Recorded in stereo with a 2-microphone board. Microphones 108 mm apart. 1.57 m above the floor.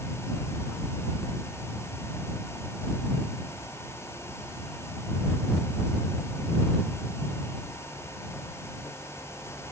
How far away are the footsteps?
I don't hear footsteps.